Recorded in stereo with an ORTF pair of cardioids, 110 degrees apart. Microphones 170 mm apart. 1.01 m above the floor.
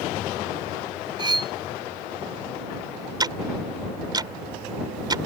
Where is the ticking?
25° right.